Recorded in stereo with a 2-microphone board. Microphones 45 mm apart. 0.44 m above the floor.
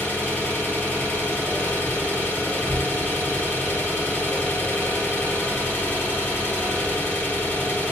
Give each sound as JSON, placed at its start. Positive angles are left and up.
{"t": 0.0, "sound": "an engine running", "side_deg": 60, "distance_m": 1.8}